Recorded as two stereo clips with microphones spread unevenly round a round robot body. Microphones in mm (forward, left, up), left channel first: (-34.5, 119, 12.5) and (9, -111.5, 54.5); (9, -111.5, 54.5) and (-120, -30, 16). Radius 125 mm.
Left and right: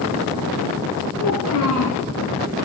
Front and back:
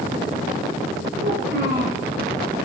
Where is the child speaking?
120° left, 3.5 m.